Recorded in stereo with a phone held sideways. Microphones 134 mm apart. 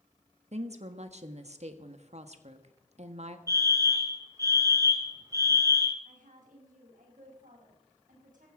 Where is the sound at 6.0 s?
75° right (ahead or behind), 5.5 m.